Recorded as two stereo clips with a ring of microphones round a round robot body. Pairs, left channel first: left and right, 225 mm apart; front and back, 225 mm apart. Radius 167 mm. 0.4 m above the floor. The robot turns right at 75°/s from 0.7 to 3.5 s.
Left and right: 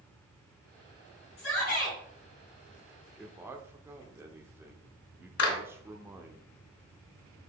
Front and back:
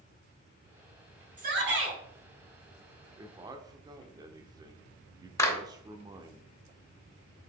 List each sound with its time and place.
1.4 s a shout: 125° left, 4.5 m; by 2.0 s 170° left, 4.5 m
3.2 s a man speaking: 175° right, 0.8 m; by 6.4 s 150° right, 0.8 m
5.4 s a clap: 75° left, 2 m